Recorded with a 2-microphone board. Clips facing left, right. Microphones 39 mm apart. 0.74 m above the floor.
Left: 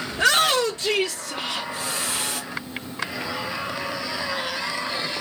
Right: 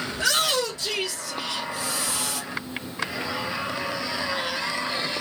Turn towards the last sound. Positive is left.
turn(degrees=45)  # may be behind; listen again after turning